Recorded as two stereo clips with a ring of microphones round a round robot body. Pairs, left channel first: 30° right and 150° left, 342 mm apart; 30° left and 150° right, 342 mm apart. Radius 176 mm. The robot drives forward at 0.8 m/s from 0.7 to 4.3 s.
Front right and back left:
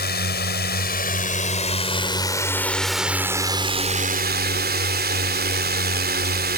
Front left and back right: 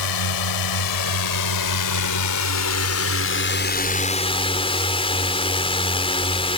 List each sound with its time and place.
0.0 s a drone: 30° left; by 6.6 s 100° left